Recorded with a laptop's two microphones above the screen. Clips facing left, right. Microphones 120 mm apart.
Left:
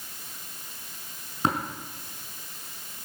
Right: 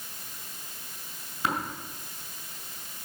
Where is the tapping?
40° left (ahead or behind), 5.5 m.